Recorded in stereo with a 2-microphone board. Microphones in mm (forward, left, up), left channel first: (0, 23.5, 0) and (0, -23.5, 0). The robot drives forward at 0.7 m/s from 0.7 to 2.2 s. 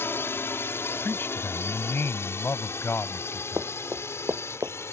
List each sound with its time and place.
0.0 s a drone: 65° left (ahead or behind); by 4.9 s 80° left
1.0 s a man speaking: 55° left (ahead or behind); by 3.7 s 60° left (ahead or behind)
3.6 s running footsteps: 65° right (ahead or behind); by 4.7 s 60° right (ahead or behind)